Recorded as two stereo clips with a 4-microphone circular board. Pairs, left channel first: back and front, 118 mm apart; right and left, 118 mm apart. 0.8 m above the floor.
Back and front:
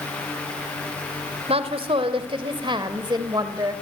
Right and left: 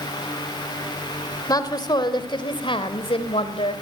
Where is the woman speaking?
35° right, 3 m; by 3.8 s 60° right, 3.5 m.